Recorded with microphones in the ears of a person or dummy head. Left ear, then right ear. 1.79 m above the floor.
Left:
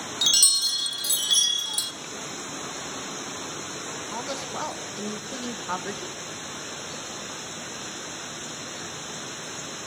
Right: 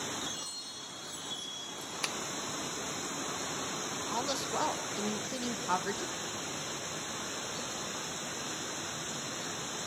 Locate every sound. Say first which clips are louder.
0.2 s a chime: left 19 dB; 50° left (ahead or behind), 0.9 m
2.0 s tapping: right 2 dB; 55° right (ahead or behind), 0.6 m
4.1 s a woman speaking: even; 10° right (ahead or behind), 1.6 m